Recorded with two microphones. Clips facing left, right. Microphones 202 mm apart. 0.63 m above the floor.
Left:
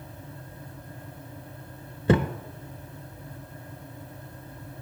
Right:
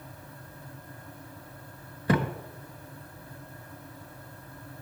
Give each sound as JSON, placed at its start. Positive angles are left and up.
{"t": 2.1, "sound": "a thud", "side_deg": 25, "distance_m": 0.6}